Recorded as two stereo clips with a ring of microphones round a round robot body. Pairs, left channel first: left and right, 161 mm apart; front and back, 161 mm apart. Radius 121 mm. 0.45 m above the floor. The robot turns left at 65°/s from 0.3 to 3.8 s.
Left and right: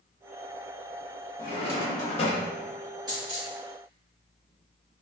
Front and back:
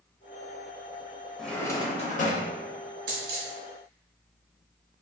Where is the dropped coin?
160° right, 1.4 m; by 3.5 s 170° left, 1.4 m.